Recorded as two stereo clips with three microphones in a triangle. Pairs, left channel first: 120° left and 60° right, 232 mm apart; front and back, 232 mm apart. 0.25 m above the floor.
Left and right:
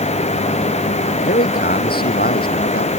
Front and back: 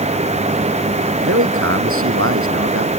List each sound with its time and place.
1.2 s a man speaking: 165° left